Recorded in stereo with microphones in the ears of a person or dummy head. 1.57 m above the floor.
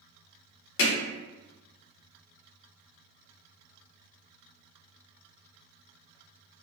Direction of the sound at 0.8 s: 65° left (ahead or behind).